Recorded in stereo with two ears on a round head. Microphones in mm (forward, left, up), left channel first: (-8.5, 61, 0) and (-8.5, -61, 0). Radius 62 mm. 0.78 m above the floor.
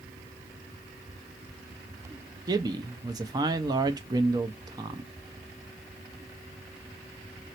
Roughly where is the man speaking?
Right.